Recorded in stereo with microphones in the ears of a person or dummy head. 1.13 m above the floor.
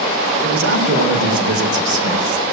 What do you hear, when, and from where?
0.4 s a man speaking: 65° right (ahead or behind), 3.5 m